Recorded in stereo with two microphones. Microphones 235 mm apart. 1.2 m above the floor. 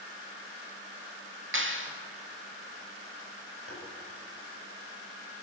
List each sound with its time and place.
1.5 s a clap: 55° right (ahead or behind), 2 m
3.7 s tapping: 70° right (ahead or behind), 6.5 m